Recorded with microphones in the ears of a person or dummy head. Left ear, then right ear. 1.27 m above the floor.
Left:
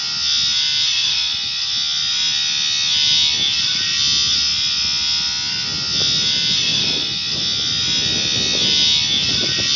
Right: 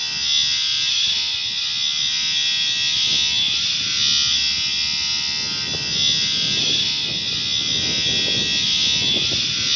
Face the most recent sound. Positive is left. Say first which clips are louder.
# left 1 dB
turn(degrees=55)  # may be behind; listen again after turning